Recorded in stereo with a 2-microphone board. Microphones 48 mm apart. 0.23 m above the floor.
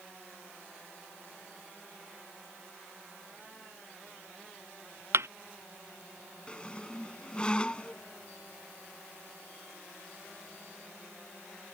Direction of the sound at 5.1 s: 65° right (ahead or behind).